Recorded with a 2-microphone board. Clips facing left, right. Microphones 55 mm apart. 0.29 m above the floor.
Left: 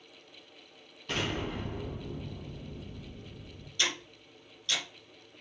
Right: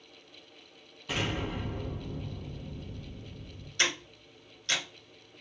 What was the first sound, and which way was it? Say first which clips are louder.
An explosion: even; 10° right (ahead or behind).